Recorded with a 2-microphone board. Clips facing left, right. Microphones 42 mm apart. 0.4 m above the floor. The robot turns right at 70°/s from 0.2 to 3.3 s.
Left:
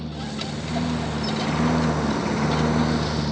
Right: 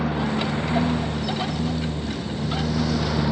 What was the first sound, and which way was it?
A lawn mower, 65° right (ahead or behind).